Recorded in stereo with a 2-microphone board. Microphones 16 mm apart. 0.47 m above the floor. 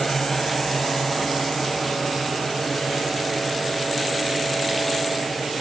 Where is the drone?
35° left (ahead or behind); by 5.6 s 50° left (ahead or behind).